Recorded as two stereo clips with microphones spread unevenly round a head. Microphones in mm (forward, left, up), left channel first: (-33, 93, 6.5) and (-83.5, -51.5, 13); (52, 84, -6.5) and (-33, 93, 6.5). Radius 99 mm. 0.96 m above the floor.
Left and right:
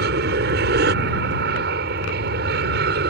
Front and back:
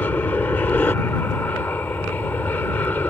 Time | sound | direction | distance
0.0 | an aircraft | 85° right | ?